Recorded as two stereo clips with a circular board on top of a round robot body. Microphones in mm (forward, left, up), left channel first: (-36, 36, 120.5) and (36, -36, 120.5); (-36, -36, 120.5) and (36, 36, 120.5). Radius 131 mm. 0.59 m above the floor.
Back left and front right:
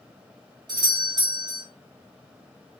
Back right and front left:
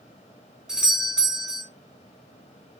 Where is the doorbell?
35° right, 2.5 m.